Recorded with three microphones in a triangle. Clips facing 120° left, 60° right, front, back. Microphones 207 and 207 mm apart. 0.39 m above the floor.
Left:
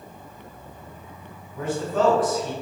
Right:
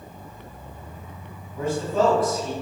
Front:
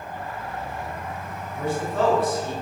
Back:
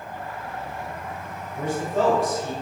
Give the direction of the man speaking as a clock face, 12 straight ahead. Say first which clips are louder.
Right 1 dB, even; 4 o'clock.